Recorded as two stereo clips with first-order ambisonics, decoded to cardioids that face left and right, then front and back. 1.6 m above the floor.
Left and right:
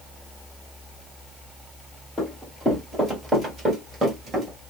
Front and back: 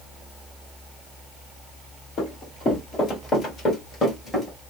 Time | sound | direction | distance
2.2 | running footsteps | 15° left | 1.9 m